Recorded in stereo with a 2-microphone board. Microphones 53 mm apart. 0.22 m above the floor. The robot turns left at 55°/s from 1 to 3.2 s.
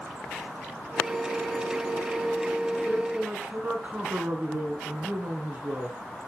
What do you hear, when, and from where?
2.9 s a man speaking: 20° right (ahead or behind), 2.5 m; by 6.0 s 35° right (ahead or behind), 2.5 m